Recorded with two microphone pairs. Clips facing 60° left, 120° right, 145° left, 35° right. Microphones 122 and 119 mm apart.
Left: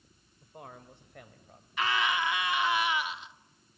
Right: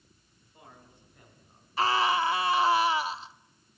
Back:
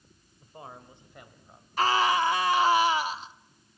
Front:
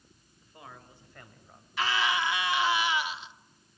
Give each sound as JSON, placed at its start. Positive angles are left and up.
{"t": 0.4, "sound": "a man speaking", "azimuth_deg": 95, "distance_m": 2.5}
{"t": 1.8, "sound": "a scream", "azimuth_deg": -170, "distance_m": 1.2}